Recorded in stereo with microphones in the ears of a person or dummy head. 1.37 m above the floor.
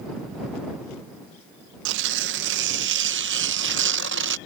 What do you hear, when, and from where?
1.9 s tearing paper: 70° right (ahead or behind)